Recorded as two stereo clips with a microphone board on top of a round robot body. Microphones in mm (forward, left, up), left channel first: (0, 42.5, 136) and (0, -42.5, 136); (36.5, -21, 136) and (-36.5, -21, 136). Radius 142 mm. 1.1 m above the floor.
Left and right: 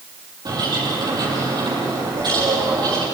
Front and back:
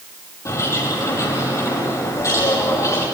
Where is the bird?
50° right, 10 m.